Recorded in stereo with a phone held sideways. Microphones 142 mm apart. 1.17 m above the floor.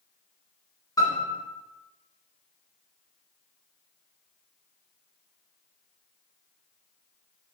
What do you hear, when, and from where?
1.0 s a piano: 25° left (ahead or behind), 2.5 m